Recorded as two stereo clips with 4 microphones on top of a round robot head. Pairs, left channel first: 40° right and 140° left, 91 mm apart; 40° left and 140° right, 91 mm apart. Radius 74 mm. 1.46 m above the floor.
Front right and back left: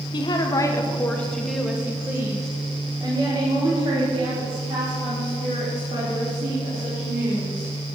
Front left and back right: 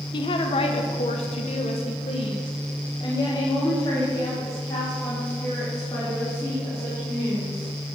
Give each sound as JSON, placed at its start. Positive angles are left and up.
{"t": 0.1, "sound": "a woman speaking", "azimuth_deg": 0, "distance_m": 1.1}